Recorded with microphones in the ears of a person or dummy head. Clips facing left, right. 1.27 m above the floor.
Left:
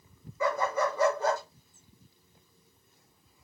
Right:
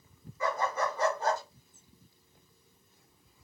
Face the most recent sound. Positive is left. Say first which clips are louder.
# left 3 dB
turn(degrees=80)